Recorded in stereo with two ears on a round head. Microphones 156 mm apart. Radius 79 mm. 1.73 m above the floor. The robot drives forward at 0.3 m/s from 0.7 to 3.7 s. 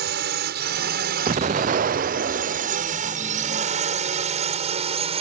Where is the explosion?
35° right (ahead or behind); by 2.8 s 50° right (ahead or behind).